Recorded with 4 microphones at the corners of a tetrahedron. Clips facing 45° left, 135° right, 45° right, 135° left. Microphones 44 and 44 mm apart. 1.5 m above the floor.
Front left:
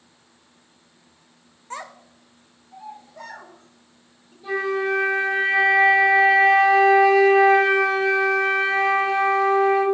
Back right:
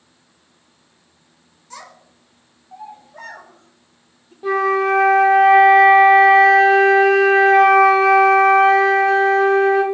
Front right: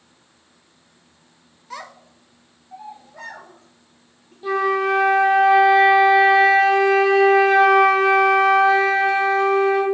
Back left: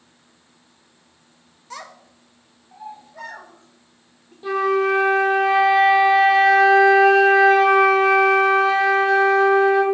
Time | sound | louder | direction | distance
1.7 | a child speaking | front left 4 dB, front right 1 dB | 35° left | 0.5 m
4.4 | a flute | back right 6 dB, even | 135° right | 0.9 m